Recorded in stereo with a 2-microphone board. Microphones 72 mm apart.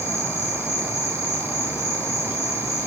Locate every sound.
0.0 s an insect: 40° left (ahead or behind), 7 m